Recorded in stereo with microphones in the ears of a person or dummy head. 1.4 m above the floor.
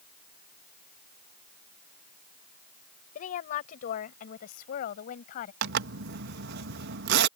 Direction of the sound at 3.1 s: 50° left (ahead or behind).